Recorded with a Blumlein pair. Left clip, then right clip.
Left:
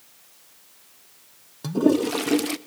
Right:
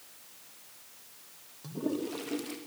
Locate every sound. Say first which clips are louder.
1.6 s a toilet flushing: left 14 dB; 35° left, 0.6 m